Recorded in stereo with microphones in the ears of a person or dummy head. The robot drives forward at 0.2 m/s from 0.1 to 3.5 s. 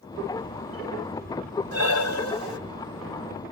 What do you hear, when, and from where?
1.7 s breathing: 75° left (ahead or behind), 1.2 m; by 2.6 s 70° left (ahead or behind), 1.2 m